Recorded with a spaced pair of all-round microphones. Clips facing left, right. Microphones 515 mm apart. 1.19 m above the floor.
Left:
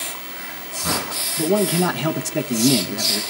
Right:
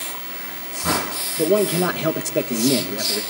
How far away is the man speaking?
About 1.5 m.